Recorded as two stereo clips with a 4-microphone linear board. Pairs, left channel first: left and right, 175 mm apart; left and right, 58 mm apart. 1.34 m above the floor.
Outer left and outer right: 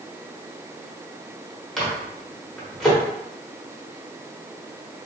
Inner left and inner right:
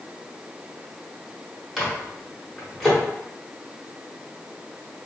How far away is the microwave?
About 1.1 m.